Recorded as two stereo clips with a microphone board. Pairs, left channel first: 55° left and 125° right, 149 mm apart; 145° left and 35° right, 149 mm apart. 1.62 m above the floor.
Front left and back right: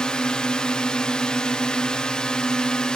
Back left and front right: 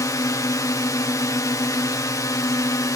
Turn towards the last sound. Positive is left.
turn(degrees=130)